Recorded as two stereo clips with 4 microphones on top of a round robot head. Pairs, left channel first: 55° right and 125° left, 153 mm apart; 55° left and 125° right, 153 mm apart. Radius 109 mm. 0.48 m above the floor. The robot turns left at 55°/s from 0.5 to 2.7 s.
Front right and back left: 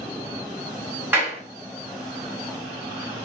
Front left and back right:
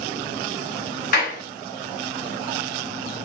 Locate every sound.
1.1 s a clap: 50° left, 2 m; by 1.4 s 35° left, 2 m